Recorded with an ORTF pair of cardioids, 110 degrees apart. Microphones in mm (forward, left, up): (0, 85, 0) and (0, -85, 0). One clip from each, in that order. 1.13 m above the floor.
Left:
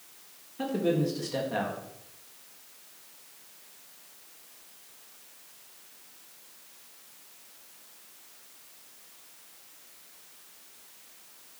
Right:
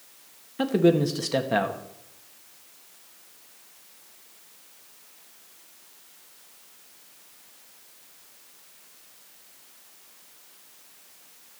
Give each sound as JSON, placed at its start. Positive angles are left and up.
{"t": 0.6, "sound": "a man speaking", "azimuth_deg": -50, "distance_m": 1.6}